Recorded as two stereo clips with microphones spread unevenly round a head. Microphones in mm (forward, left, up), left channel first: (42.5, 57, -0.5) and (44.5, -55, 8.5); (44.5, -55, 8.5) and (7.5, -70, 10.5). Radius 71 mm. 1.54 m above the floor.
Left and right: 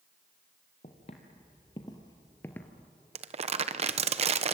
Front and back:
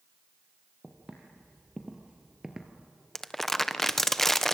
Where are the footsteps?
130° left, 3 m; by 2.9 s 170° right, 1.5 m.